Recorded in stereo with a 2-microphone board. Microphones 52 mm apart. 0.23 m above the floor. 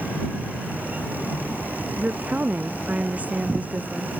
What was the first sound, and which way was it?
A woman speaking, 30° right (ahead or behind).